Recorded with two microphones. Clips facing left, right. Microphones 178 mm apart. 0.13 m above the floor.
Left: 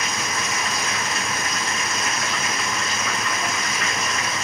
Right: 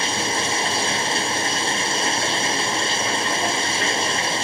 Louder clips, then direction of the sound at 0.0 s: Right 4 dB; 30° right (ahead or behind).